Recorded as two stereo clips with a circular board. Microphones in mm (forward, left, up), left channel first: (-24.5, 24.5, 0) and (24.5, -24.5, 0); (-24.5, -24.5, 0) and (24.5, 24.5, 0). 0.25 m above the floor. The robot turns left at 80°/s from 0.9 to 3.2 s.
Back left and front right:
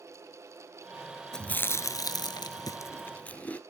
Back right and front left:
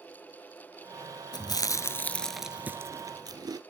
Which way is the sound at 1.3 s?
140° right.